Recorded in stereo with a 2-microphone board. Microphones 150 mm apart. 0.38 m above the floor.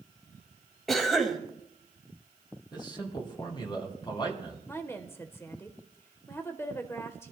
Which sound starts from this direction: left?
A man speaking, at 2.7 s.